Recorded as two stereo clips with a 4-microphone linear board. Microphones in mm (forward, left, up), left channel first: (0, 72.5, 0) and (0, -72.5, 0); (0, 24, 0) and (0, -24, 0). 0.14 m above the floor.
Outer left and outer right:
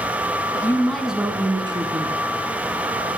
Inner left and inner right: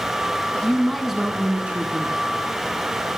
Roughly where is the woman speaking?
Left.